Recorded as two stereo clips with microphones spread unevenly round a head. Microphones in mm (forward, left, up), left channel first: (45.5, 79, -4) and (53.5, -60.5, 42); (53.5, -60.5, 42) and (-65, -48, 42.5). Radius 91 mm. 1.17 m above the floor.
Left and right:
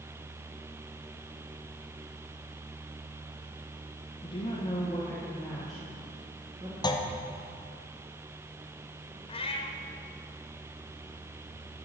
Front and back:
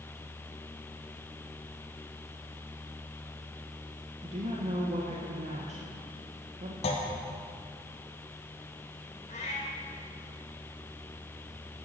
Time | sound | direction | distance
4.2 | a woman speaking | 135° left | 1.3 m
6.8 | a clunk | 40° left | 1.1 m
9.3 | a cat meowing | 40° left | 1.1 m